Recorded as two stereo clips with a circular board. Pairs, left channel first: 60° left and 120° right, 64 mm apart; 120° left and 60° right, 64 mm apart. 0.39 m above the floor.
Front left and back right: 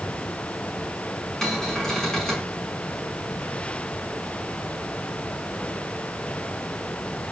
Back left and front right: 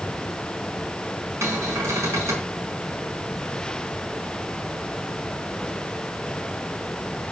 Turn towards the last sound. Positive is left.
turn(degrees=-20)